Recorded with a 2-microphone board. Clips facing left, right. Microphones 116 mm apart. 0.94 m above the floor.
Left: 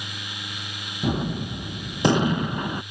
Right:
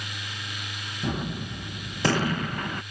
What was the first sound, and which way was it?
A gunshot, 20° left (ahead or behind).